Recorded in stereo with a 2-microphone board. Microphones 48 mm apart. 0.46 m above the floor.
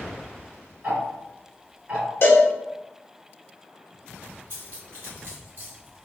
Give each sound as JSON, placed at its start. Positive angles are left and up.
{"t": 0.8, "sound": "ticking", "side_deg": -35, "distance_m": 1.5}
{"t": 2.2, "sound": "a cowbell", "side_deg": 55, "distance_m": 1.1}
{"t": 4.5, "sound": "cutlery clinking", "side_deg": -45, "distance_m": 1.4}